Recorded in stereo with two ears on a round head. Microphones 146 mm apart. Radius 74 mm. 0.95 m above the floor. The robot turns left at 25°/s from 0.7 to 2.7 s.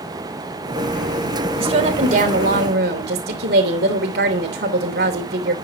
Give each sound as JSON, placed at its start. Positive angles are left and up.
{"t": 1.6, "sound": "a woman speaking", "side_deg": -35, "distance_m": 3.0}